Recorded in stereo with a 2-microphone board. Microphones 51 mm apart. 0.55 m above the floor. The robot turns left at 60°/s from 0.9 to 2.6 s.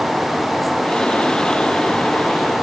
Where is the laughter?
I don't hear laughter.